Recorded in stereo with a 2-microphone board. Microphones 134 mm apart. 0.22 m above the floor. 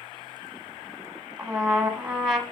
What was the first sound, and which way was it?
A trumpet, centre (ahead or behind).